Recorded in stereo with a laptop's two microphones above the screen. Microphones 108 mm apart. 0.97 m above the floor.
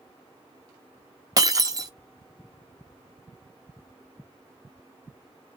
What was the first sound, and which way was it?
Breaking glass, 35° right (ahead or behind).